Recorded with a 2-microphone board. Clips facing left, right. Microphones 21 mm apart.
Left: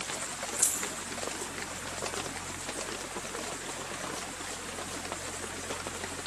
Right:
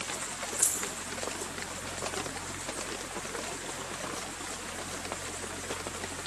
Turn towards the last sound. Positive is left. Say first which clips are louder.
# even
turn(degrees=35)  # may be behind; listen again after turning